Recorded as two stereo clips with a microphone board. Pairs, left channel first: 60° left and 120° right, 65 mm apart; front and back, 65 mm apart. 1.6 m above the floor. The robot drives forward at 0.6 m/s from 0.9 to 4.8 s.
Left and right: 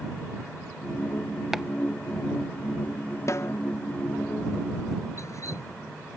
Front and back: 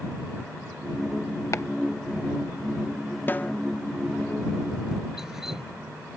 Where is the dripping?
95° left.